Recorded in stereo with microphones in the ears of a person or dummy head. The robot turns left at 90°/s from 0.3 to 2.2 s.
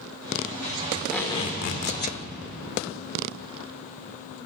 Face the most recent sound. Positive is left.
turn(degrees=75)